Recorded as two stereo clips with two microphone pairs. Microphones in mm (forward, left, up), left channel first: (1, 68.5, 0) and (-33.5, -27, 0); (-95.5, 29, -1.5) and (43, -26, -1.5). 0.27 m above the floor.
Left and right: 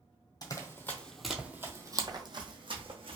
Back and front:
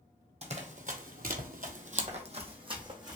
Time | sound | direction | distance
0.4 | running footsteps | 20° left | 0.7 m